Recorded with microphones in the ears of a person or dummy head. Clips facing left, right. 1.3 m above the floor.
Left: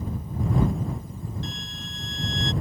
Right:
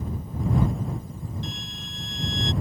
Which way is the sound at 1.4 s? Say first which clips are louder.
Even; 5° right (ahead or behind).